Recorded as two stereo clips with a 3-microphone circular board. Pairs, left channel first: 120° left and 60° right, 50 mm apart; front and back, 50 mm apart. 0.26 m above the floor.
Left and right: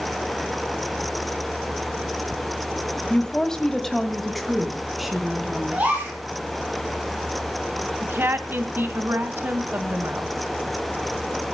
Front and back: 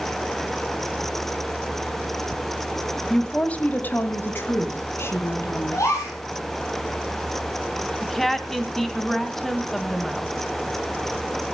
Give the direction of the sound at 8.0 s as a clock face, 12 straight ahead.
3 o'clock.